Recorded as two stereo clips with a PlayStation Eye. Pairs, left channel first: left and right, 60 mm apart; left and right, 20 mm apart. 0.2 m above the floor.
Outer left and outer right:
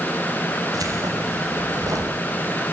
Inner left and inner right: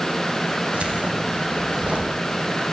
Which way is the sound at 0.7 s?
80° right.